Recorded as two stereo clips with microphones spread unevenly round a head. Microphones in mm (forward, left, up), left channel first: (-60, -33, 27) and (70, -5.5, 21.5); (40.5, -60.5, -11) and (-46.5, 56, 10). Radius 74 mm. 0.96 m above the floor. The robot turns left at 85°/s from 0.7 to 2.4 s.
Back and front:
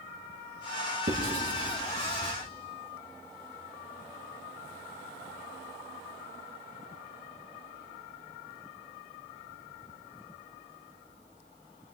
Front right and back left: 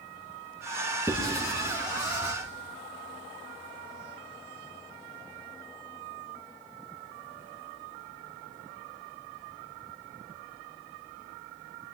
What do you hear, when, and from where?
1.1 s writing: 50° left, 2 m; by 2.3 s 55° right, 2 m